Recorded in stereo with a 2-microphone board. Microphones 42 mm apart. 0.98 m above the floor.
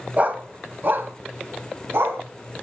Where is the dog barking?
35° right (ahead or behind), 1.3 m; by 2.2 s 65° right (ahead or behind), 2 m.